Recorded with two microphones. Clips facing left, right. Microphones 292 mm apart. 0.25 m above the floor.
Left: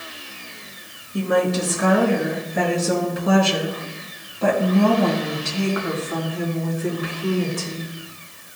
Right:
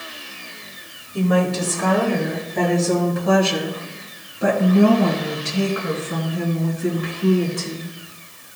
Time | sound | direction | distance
1.1 | a woman speaking | 20° left (ahead or behind) | 3 m